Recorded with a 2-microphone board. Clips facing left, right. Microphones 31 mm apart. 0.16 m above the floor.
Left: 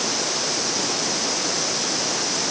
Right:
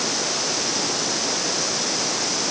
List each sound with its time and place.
Only background noise.